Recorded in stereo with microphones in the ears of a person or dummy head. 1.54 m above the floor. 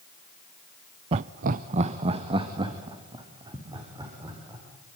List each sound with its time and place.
1.1 s laughter: 30° right (ahead or behind), 0.5 m; by 4.6 s 20° right (ahead or behind), 5 m